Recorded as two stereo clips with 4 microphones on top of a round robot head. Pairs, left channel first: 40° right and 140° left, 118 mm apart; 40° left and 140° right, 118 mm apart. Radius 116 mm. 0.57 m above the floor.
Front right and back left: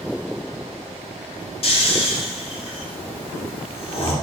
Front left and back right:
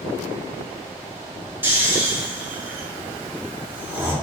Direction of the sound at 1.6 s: 70° right.